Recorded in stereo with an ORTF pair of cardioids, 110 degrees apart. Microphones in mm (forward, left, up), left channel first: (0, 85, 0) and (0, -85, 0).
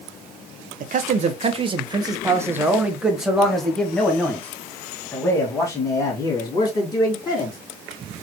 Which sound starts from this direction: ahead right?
A man speaking, at 0.8 s.